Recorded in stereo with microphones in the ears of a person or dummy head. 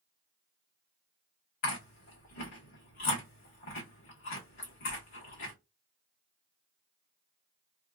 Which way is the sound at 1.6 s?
60° left (ahead or behind).